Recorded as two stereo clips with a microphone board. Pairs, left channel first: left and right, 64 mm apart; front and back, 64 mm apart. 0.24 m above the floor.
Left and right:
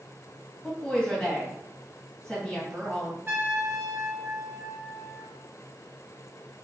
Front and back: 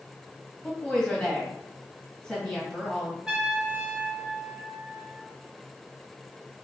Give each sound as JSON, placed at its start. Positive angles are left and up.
{"t": 0.6, "sound": "a woman speaking", "azimuth_deg": 45, "distance_m": 1.4}
{"t": 3.3, "sound": "a trumpet", "azimuth_deg": -90, "distance_m": 0.9}